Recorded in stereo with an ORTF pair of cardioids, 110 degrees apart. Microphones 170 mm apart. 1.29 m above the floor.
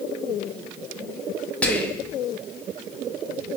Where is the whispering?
10° left, 0.5 m.